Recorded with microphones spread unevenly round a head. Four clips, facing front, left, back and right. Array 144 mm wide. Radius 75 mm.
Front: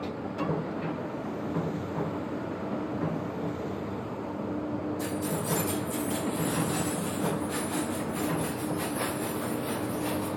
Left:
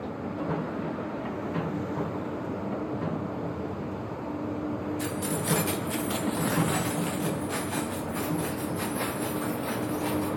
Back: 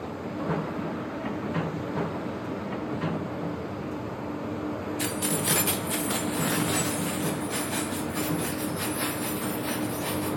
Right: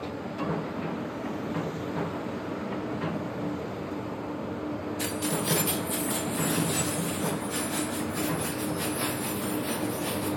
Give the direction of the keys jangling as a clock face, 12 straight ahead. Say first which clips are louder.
Even, back 1 dB; 5 o'clock.